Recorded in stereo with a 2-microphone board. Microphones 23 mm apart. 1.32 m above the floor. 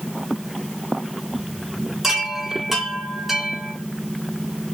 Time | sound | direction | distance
2.0 | a chime | 10° right (ahead or behind) | 4 m